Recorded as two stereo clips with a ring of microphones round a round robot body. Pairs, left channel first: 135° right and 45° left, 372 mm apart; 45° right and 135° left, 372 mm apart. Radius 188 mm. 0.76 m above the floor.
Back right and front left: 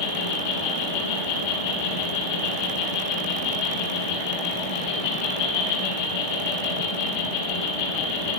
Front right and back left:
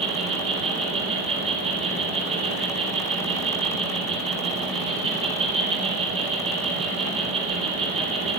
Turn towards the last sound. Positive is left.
turn(degrees=-150)